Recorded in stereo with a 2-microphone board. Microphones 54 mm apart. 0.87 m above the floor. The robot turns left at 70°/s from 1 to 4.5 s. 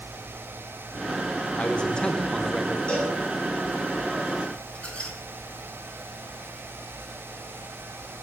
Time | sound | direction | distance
1.6 | a man speaking | 25° left (ahead or behind) | 0.6 m
2.9 | a cowbell | 20° left (ahead or behind) | 2.5 m
4.8 | a squeak | 25° left (ahead or behind) | 1.1 m